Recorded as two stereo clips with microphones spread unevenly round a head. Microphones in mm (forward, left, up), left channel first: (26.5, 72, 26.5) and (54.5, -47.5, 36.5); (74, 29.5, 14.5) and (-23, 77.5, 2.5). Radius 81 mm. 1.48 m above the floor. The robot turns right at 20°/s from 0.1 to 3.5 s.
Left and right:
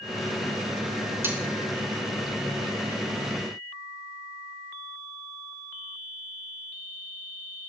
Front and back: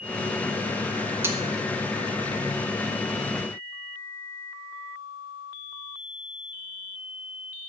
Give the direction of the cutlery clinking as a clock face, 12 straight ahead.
5 o'clock.